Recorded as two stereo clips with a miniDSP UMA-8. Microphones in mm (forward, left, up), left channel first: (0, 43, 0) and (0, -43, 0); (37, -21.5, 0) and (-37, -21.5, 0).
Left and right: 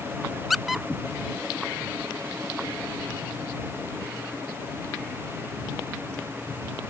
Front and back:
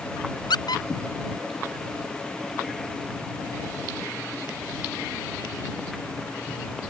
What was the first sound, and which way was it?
A squeak, straight ahead.